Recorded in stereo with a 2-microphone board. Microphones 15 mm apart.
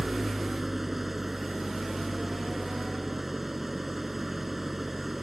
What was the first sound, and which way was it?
An engine running, 20° right (ahead or behind).